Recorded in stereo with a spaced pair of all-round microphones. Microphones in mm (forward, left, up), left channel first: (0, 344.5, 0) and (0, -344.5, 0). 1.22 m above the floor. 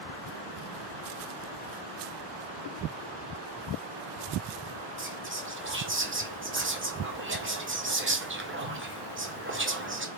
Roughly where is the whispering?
Centre.